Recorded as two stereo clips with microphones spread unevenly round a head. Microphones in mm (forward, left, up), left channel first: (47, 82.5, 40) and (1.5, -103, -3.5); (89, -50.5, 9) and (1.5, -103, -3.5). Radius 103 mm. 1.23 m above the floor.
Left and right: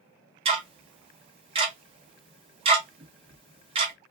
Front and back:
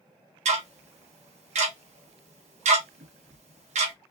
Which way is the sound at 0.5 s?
175° right.